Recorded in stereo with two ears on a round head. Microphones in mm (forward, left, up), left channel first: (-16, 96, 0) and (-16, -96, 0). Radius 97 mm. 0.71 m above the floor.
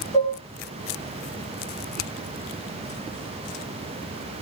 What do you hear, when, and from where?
0.1 s dishes clattering: 25° left (ahead or behind), 6 m